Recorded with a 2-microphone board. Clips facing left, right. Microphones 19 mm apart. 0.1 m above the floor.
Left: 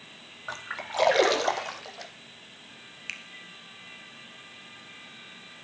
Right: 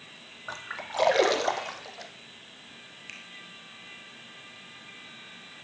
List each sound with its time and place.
0.5 s a splash: 15° left (ahead or behind), 0.8 m
3.1 s a finger snap: 45° left (ahead or behind), 1.2 m